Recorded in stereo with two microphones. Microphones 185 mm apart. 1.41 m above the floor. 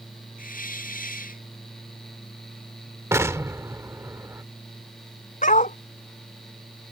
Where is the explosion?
15° right (ahead or behind).